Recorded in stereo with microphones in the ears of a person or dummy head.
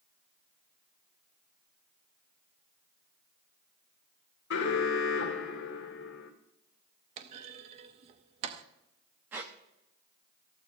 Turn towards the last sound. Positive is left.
turn(degrees=-15)  # may be behind; listen again after turning